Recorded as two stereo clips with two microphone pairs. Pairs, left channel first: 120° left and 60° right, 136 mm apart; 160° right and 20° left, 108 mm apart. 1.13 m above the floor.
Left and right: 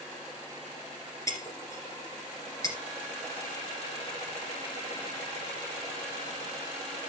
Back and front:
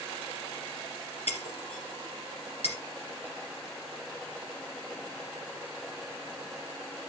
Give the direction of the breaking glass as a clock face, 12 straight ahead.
6 o'clock.